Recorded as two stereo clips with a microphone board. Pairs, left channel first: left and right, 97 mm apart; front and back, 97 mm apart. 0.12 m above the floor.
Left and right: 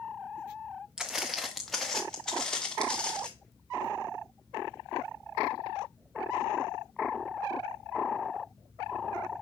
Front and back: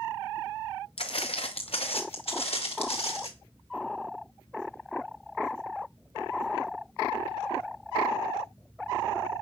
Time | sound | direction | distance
1.0 | footsteps | 5° right | 0.9 m